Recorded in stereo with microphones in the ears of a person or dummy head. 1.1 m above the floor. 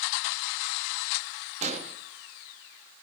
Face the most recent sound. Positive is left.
turn(degrees=-35)  # may be behind; listen again after turning